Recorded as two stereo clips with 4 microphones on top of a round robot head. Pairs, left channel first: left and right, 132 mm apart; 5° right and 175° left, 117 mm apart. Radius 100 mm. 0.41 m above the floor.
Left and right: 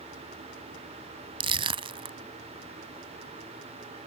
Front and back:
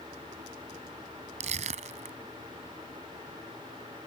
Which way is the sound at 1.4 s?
140° right.